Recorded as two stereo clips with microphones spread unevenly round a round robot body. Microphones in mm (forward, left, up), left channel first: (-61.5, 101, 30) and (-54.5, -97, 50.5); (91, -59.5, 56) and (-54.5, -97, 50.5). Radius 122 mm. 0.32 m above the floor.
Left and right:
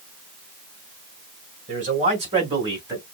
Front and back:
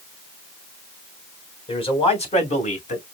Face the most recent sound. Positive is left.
turn(degrees=-10)